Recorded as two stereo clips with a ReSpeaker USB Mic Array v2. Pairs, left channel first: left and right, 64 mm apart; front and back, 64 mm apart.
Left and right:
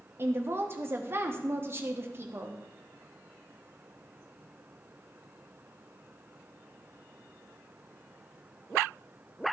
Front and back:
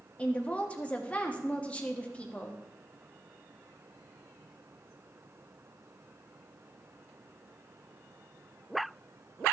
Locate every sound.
0.2 s a woman speaking: 60° right, 1.1 m